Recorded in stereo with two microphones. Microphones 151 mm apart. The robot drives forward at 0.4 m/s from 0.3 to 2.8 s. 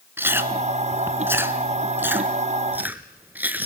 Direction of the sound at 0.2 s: 15° right (ahead or behind).